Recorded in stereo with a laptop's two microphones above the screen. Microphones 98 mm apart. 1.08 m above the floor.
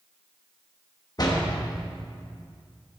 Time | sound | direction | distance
1.2 | a door slam | 45° left (ahead or behind) | 1.0 m